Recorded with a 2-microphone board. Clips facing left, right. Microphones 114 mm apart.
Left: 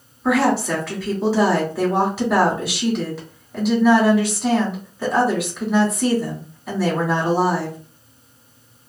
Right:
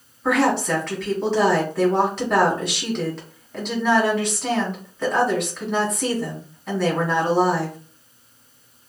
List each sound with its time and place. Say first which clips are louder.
0.2 s a woman speaking: left 2 dB; 5° left (ahead or behind), 1.3 m